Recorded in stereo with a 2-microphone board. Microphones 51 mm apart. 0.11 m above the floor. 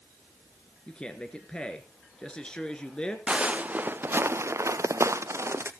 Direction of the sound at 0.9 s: 20° left (ahead or behind).